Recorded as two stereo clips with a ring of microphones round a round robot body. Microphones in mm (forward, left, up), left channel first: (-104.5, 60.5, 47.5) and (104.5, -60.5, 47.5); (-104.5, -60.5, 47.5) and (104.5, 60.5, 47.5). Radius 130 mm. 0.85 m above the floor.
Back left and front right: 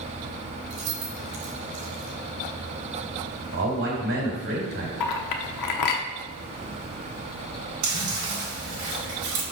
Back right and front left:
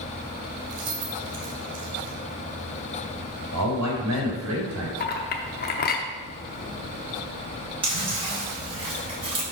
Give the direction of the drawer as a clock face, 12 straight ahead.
No drawer in this recording.